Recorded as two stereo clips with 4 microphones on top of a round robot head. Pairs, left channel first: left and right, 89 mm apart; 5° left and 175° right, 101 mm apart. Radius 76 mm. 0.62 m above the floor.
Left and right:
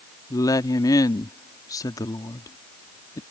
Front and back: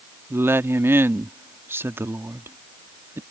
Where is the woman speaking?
125° left.